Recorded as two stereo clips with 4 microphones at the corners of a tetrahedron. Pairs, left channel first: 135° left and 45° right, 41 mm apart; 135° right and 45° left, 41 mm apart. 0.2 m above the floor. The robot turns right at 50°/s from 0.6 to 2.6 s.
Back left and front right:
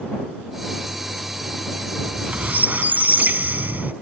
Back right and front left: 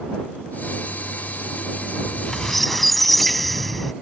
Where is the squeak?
80° right; by 3.9 s 50° right.